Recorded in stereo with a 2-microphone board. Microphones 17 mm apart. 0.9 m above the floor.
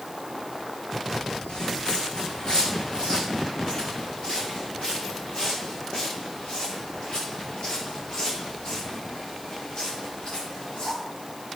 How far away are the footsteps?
About 2 m.